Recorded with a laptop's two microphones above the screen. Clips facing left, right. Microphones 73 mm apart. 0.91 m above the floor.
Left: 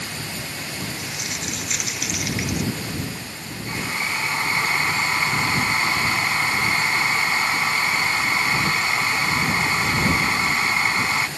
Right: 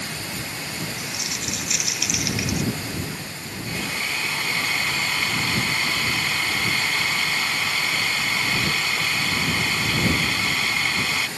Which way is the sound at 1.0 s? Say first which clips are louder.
Left 1 dB; 35° left (ahead or behind).